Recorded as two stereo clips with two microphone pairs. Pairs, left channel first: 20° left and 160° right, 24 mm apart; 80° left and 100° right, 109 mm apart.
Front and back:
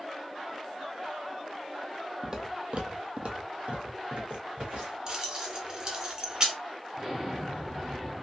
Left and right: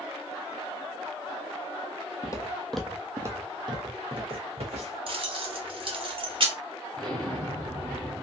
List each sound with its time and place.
2.2 s footsteps: 130° left, 0.7 m; by 5.0 s 125° right, 1.8 m
5.1 s keys jangling: 120° right, 0.9 m
6.9 s an explosion: 165° left, 1.3 m